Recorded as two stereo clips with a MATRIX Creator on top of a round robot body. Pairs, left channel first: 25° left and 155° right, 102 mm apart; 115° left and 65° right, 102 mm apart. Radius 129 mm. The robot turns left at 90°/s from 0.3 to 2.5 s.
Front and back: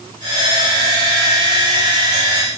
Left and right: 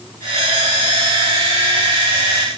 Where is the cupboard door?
I don't hear a cupboard door.